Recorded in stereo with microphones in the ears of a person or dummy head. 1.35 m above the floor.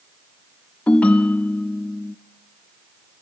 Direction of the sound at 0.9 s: 20° left (ahead or behind).